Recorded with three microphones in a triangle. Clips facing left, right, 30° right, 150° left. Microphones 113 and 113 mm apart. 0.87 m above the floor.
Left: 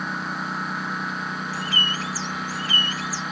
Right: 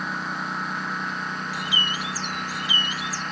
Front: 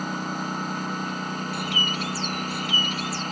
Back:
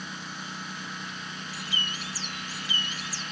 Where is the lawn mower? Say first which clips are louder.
Left 1 dB, front 11 dB; straight ahead; by 3.3 s 5° left.